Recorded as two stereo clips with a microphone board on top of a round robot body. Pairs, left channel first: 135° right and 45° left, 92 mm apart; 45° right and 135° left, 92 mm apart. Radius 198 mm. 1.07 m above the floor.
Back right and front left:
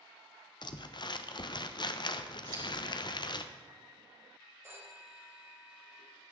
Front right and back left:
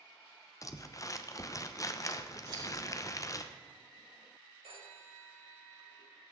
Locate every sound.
0.6 s crumpling: 100° right, 1.0 m
2.5 s scissors: 85° left, 4.5 m
4.6 s a phone ringing: 105° left, 3.5 m